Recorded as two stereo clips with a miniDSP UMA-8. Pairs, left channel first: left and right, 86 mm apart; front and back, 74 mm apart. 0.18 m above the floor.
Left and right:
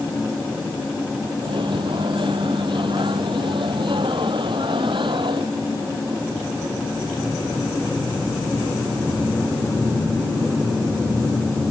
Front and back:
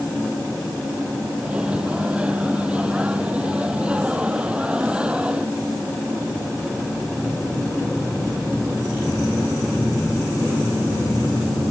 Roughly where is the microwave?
Right.